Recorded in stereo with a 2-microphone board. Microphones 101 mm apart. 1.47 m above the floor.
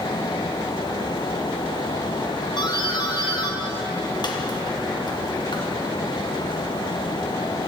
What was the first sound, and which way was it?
A doorbell, 45° left (ahead or behind).